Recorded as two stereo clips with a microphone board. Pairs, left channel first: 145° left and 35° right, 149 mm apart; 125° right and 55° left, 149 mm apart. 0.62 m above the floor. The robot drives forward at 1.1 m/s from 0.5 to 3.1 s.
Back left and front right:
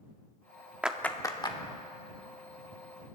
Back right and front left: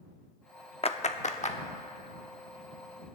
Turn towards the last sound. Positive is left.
turn(degrees=-170)